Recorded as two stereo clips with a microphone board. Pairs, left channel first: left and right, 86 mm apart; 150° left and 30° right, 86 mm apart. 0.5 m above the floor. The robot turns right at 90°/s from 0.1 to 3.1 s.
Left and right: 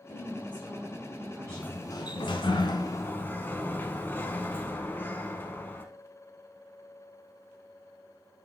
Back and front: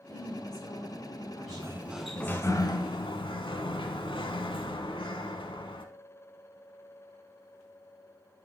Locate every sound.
0.1 s a woman speaking: 110° left, 1.2 m; by 2.5 s 35° right, 1.2 m
1.5 s a sliding door: 10° left, 0.9 m; by 5.8 s 155° left, 0.9 m